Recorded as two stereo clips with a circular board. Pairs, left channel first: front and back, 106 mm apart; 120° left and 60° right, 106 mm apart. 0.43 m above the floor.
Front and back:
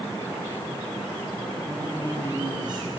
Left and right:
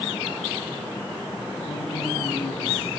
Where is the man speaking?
135° left, 4.5 m.